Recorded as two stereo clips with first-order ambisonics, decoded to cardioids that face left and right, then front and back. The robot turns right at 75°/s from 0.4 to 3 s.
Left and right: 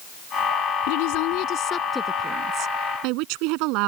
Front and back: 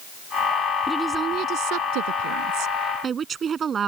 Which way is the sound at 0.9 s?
85° left.